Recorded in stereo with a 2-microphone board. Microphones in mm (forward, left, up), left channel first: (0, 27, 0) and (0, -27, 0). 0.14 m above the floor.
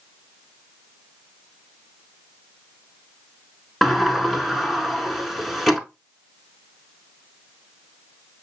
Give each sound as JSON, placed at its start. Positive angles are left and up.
{"t": 3.8, "sound": "a sliding door", "side_deg": 0, "distance_m": 0.7}